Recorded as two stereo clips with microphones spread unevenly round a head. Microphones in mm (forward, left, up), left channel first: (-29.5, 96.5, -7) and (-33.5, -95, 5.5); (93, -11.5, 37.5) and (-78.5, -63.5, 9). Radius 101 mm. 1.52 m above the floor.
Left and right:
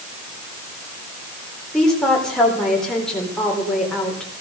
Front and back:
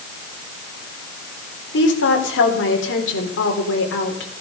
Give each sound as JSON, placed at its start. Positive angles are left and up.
{"t": 1.7, "sound": "a woman speaking", "azimuth_deg": 0, "distance_m": 4.0}